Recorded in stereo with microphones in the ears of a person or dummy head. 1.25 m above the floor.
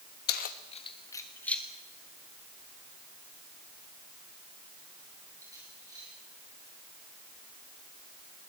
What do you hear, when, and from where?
0.3 s keys jangling: 55° left (ahead or behind), 1.3 m; by 6.1 s 20° right (ahead or behind), 7 m